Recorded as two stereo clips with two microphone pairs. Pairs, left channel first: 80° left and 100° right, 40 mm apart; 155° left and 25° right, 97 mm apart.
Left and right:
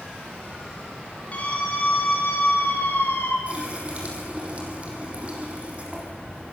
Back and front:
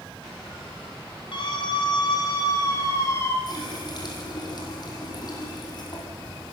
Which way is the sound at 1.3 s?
130° left.